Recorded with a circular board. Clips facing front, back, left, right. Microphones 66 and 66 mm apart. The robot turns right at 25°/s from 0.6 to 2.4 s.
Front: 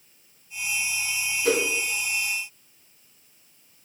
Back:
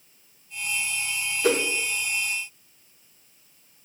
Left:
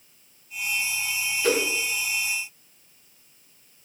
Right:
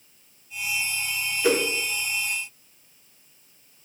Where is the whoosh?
170° right, 0.7 m; by 1.6 s 165° right, 0.7 m.